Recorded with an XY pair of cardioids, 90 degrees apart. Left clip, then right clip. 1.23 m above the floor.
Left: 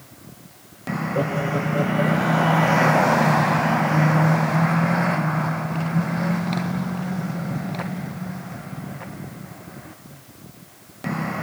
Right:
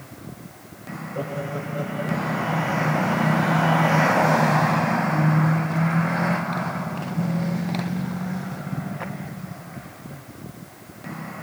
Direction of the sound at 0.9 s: 65° left.